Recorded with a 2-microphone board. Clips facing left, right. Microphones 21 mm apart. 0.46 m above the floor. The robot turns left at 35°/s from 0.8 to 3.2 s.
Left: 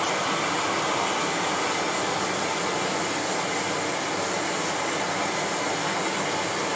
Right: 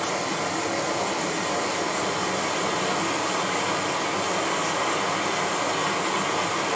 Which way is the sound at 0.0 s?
50° left.